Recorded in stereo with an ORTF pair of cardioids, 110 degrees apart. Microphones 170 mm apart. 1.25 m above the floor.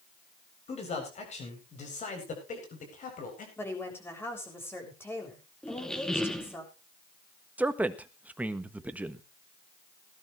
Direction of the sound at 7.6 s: 10° right.